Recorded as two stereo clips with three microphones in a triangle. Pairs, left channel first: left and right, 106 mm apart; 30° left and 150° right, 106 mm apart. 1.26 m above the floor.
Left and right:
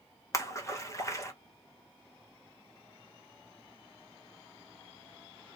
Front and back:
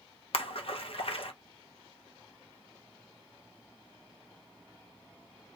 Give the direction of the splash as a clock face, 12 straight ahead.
11 o'clock.